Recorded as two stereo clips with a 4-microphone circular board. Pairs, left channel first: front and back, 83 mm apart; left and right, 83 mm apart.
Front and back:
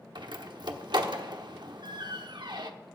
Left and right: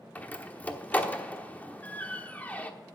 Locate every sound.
0.1 s a door slam: 160° left, 1.1 m